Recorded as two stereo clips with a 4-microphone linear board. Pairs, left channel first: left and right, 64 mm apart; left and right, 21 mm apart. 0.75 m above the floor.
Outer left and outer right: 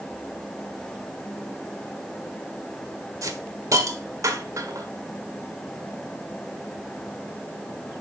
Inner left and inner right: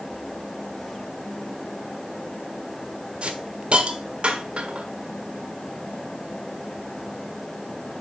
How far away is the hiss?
About 1.4 m.